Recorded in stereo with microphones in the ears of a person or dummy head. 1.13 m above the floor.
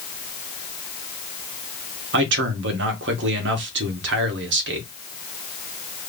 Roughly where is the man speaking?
Right.